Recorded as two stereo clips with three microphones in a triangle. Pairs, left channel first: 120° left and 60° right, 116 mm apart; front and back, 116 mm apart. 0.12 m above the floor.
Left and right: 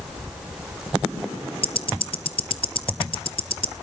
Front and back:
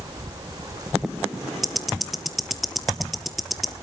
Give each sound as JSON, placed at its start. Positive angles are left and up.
{"t": 1.6, "sound": "ticking", "azimuth_deg": 90, "distance_m": 1.0}